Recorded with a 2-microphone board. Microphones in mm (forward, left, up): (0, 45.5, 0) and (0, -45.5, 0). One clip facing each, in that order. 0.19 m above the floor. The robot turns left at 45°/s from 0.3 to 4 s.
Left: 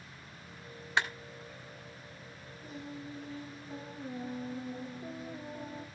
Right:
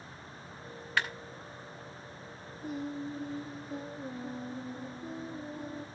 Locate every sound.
1.0 s a clap: 25° left (ahead or behind), 1.5 m
2.6 s singing: 170° right, 4.5 m; by 5.8 s 130° left, 4.5 m